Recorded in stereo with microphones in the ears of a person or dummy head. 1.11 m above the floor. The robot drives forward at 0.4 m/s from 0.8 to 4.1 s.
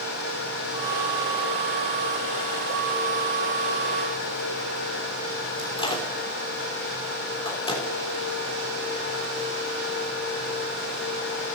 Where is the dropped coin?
No dropped coin in this recording.